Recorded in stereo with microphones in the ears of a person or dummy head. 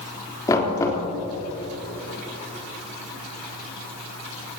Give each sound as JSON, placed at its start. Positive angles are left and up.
{"t": 0.5, "sound": "knocking", "side_deg": 15, "distance_m": 3.5}